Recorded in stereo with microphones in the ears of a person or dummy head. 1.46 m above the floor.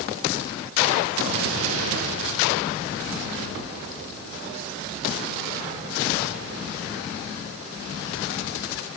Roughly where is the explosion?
Right.